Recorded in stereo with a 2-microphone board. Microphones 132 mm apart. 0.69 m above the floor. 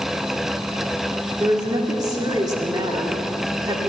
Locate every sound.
1.4 s a woman speaking: 30° right (ahead or behind), 1.9 m